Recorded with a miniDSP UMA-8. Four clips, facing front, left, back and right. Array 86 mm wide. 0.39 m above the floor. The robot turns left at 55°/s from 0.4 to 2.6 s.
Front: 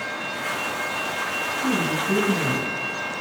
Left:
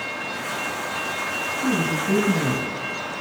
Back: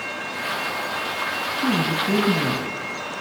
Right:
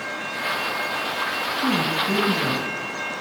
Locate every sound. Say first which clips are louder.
1.6 s a woman speaking: even, back 2 dB; 150° right, 3 m; by 2.7 s 155° left, 3 m